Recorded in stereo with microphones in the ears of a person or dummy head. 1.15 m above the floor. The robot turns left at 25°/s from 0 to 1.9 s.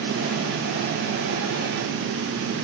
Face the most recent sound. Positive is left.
No sound to turn to.